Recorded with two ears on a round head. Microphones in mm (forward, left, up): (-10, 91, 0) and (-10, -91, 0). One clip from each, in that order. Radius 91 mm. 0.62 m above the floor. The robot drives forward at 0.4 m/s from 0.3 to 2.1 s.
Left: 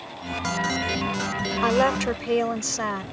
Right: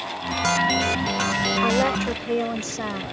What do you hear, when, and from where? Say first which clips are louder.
1.6 s a woman speaking: even; 35° left (ahead or behind); by 3.0 s 30° left (ahead or behind)